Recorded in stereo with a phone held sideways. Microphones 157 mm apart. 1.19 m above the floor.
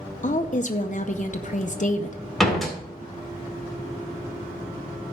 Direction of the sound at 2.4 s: Centre (ahead or behind).